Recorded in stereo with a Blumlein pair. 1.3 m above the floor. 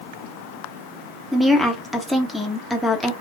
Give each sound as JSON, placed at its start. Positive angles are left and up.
{"t": 1.3, "sound": "a woman speaking", "azimuth_deg": 0, "distance_m": 1.0}